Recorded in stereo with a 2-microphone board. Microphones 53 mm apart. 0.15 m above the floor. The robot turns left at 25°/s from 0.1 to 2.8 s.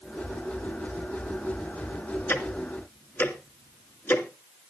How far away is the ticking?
About 2.0 m.